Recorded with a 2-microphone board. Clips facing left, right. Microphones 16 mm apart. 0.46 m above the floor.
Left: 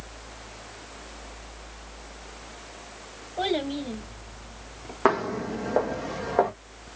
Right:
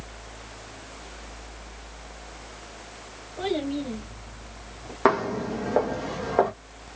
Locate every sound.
3.4 s a child speaking: 45° left (ahead or behind), 1.1 m; by 5.0 s 50° left (ahead or behind), 1.7 m
5.0 s footsteps: 5° left (ahead or behind), 0.9 m